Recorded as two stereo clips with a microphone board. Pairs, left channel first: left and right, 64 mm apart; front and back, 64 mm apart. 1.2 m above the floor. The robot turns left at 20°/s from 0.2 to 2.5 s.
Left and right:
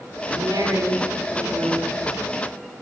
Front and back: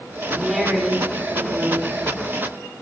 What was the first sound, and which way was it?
A woman speaking, 85° right.